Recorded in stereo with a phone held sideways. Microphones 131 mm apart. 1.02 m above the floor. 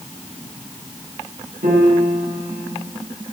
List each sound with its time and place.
1.6 s a piano: 85° right, 9 m